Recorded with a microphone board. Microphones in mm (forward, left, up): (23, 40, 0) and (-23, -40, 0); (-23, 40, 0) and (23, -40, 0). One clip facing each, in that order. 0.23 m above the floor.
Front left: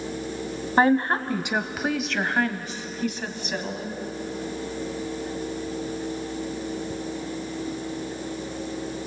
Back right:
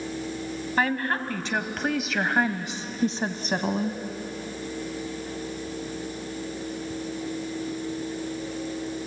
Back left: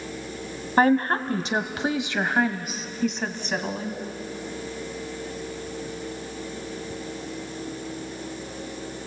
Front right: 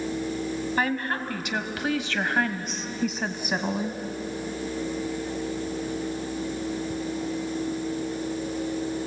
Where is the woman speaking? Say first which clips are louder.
Front left 6 dB, back left 10 dB; 100° left, 1.3 m; by 4.0 s 130° right, 1.5 m.